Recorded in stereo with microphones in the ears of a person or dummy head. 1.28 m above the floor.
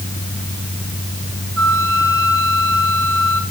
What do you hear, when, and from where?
1.6 s a flute: 80° right, 3.5 m